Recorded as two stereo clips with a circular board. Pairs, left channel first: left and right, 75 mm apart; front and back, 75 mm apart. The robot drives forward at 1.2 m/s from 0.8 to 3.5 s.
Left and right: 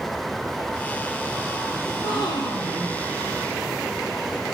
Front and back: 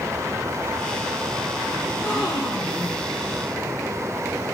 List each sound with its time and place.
1.9 s a gasp: 80° left, 5.5 m; by 3.0 s 95° left, 5.5 m